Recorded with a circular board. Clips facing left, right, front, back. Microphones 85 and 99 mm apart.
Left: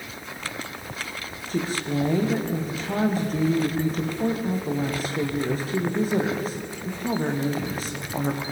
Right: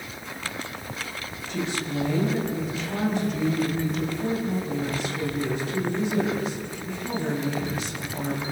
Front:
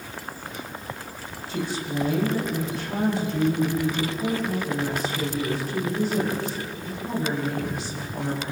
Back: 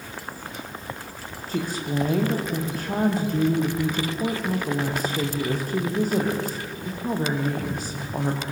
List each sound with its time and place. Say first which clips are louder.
1.5 s a woman speaking: left 2 dB, back 2 dB; 135° left, 5 m